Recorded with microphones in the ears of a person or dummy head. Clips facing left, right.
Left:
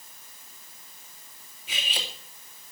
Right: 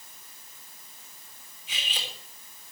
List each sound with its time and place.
1.7 s cutlery clinking: 50° left (ahead or behind), 2.5 m